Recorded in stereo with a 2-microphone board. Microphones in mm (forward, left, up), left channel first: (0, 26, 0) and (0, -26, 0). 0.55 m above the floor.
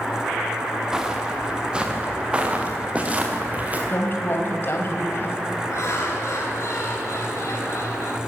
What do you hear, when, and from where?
0.9 s footsteps: 10° right (ahead or behind), 4.5 m; by 3.8 s 30° right (ahead or behind), 5.5 m
3.9 s a woman speaking: 50° left (ahead or behind), 3.5 m
5.7 s laughter: 65° left (ahead or behind), 10 m